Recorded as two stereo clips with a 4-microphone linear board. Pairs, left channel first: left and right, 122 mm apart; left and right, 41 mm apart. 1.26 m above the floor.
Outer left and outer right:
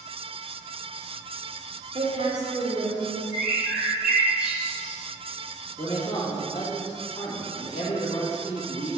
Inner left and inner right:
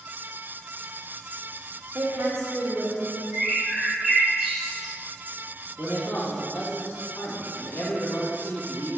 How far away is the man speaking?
About 2 m.